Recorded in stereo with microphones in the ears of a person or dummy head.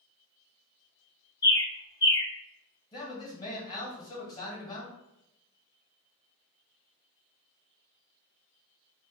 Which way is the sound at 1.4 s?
25° left (ahead or behind).